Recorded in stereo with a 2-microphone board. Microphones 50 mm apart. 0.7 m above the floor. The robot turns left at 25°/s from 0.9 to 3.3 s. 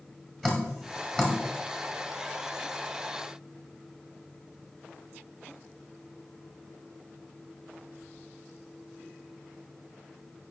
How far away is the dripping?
About 1.6 m.